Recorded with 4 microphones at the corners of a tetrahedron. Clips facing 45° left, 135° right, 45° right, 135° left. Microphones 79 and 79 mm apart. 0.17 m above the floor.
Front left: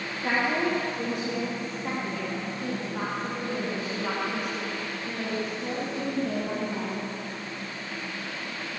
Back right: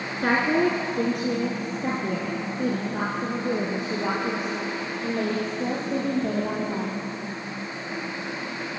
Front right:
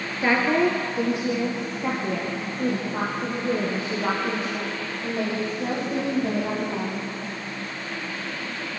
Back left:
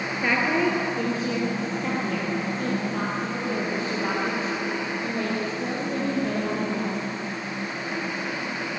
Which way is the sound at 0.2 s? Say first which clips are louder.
Back right 5 dB, front right 3 dB; 115° right.